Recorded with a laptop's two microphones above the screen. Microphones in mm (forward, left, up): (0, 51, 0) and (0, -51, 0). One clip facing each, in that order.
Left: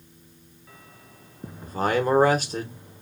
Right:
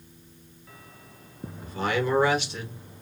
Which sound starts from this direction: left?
A man speaking, at 1.6 s.